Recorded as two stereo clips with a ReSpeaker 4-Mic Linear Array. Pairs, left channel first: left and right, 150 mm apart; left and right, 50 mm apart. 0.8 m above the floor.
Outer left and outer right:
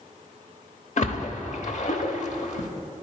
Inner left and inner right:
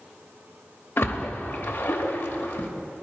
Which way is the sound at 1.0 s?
60° left (ahead or behind).